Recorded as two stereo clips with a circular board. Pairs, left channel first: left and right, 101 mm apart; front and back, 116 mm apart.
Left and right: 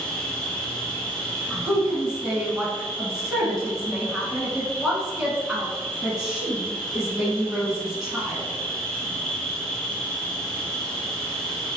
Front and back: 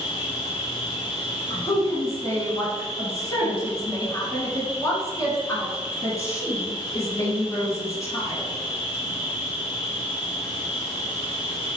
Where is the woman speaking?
10° right, 1.3 m.